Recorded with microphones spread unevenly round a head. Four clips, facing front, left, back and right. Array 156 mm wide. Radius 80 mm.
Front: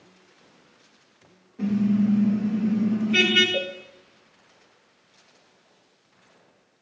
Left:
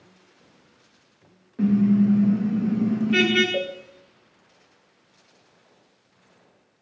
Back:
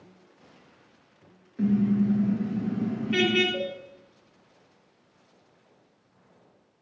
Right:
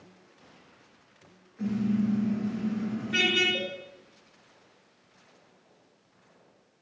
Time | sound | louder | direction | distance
1.6 | a car horn | left 9 dB, front 1 dB | 110° left | 5.5 m
3.5 | a cowbell | left 8 dB, front 2 dB | 60° left | 4 m